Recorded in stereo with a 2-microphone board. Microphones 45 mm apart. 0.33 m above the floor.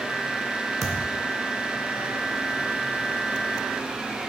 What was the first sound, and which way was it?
A thud, centre (ahead or behind).